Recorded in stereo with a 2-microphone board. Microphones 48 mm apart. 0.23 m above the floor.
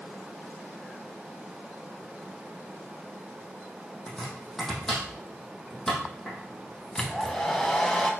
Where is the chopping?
5° left (ahead or behind), 3 m.